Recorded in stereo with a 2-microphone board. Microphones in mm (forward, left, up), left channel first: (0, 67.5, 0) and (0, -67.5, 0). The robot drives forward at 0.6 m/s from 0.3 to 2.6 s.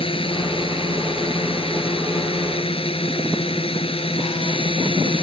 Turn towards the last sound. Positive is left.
turn(degrees=45)  # may be behind; listen again after turning